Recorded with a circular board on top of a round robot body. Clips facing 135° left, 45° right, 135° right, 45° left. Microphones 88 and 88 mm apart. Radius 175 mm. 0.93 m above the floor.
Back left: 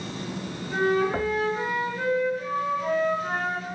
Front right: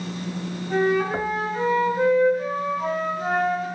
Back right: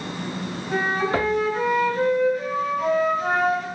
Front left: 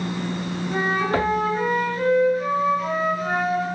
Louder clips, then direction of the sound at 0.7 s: Front right 2 dB, even; 90° right.